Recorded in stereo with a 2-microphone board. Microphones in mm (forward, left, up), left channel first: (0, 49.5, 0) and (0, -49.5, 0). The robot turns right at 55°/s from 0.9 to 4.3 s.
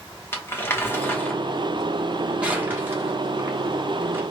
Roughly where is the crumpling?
Left.